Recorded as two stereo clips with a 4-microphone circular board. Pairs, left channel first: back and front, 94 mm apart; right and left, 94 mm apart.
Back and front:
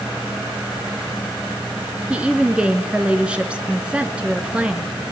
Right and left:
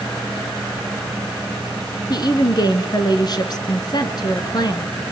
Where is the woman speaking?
75° right, 1.8 m.